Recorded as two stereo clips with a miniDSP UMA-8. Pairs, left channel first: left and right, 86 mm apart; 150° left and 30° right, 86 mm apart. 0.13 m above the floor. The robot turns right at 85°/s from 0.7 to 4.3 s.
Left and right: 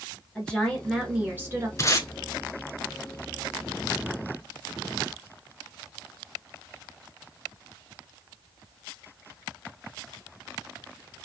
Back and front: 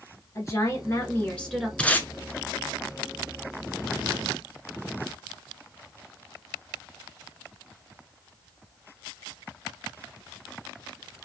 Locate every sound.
0.3 s a woman speaking: 160° left, 1.4 m; by 1.7 s 115° right, 1.4 m
1.8 s tape being pulled: 80° left, 0.6 m; by 2.1 s 105° left, 0.6 m